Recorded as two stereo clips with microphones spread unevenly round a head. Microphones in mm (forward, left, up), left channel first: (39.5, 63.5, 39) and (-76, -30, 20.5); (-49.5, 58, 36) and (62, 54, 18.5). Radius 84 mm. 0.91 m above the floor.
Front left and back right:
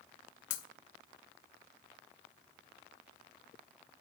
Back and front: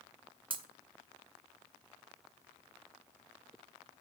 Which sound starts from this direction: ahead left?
Breaking glass, at 0.5 s.